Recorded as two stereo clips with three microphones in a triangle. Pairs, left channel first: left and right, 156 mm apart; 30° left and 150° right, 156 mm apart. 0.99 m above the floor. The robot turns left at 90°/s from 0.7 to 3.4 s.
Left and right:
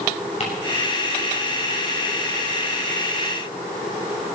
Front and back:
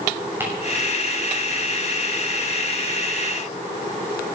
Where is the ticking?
135° left, 6 m.